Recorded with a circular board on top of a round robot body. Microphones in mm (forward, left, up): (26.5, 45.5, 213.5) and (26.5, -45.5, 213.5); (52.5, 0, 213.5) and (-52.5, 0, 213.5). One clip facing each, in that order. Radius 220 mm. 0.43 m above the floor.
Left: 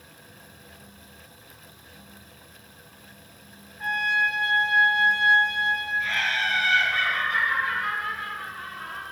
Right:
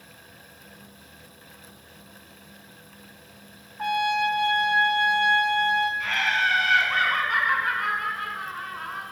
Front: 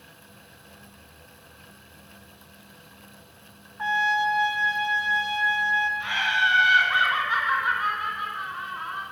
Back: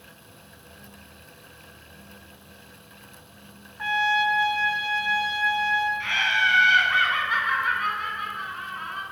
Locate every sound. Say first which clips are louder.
3.8 s a trumpet: right 2 dB, even; 70° right, 1.0 m
6.0 s laughter: right 2 dB, even; 75° right, 3 m